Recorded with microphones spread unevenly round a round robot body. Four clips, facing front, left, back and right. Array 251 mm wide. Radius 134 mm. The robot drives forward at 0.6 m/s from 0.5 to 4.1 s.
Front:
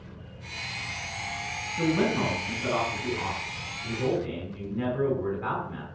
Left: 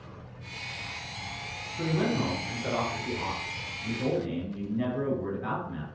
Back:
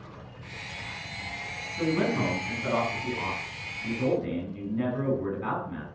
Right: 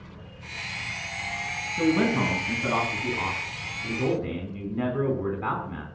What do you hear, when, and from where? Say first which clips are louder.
1.8 s a man speaking: right 5 dB, front 1 dB; 85° right, 5.5 m; by 5.8 s 100° right, 5.5 m